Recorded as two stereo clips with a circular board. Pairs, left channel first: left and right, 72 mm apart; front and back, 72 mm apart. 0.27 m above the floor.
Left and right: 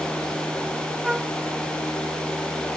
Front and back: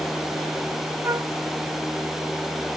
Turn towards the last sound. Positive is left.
turn(degrees=-170)